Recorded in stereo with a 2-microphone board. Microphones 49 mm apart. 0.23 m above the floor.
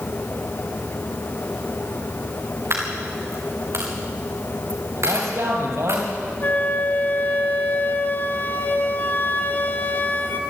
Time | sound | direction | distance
2.7 | a dropped coin | 65° right (ahead or behind) | 4 m
5.0 | a man speaking | 75° right (ahead or behind) | 5.5 m
6.4 | a flute | 40° left (ahead or behind) | 1.8 m